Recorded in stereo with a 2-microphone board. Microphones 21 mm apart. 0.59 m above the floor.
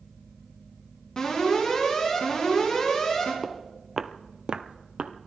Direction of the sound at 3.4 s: 10° left (ahead or behind).